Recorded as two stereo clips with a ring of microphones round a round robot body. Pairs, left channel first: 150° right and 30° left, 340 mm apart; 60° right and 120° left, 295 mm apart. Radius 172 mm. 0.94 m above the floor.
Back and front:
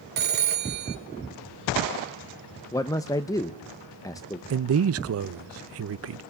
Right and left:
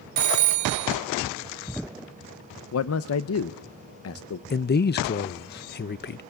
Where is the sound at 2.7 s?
75° right, 0.7 m.